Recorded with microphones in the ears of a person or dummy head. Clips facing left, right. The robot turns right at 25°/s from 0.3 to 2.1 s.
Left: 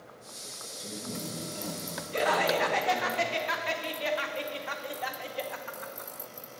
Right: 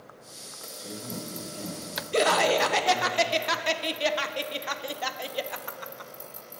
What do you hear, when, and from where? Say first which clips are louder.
0.8 s a man speaking: right 1 dB; 175° left, 2.5 m; by 3.1 s 150° right, 2.5 m
2.1 s laughter: right 4 dB; 65° right (ahead or behind), 0.5 m